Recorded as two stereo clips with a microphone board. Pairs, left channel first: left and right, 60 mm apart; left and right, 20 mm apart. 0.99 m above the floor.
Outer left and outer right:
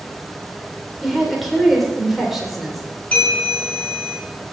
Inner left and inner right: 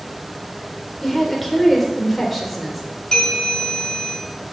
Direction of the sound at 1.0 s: Centre (ahead or behind).